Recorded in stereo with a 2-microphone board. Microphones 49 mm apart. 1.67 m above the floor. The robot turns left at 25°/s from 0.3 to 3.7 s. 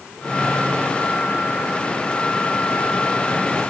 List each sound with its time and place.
Only background noise.